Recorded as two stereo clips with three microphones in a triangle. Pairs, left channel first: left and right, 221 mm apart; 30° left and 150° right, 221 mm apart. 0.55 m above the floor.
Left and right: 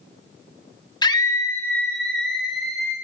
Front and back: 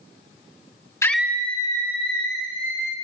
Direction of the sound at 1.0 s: 75° left.